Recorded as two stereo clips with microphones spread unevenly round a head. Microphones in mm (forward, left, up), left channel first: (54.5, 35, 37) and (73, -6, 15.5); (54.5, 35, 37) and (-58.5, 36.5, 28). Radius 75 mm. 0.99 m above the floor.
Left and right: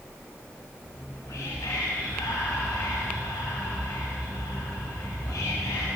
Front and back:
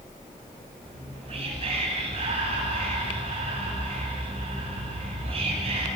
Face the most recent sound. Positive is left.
turn(degrees=145)